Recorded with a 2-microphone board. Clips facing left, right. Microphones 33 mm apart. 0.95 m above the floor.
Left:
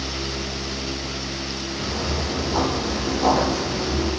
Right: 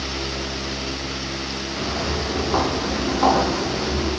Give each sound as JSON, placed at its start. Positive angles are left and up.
{"t": 1.8, "sound": "footsteps", "side_deg": -80, "distance_m": 4.5}